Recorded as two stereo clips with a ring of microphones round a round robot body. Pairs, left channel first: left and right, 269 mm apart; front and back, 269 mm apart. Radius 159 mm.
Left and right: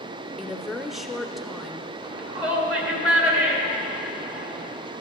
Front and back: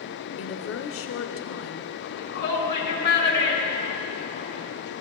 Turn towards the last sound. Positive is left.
turn(degrees=-50)